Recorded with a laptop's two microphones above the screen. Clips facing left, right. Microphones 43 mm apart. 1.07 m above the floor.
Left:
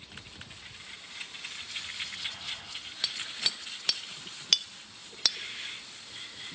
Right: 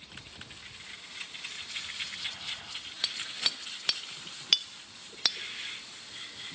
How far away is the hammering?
About 0.9 m.